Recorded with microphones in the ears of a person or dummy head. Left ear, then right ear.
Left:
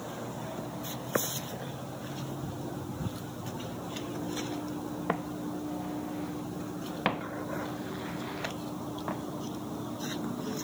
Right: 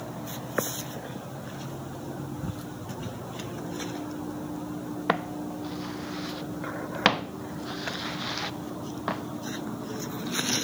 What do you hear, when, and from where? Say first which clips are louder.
5.1 s footsteps: right 6 dB; 85° right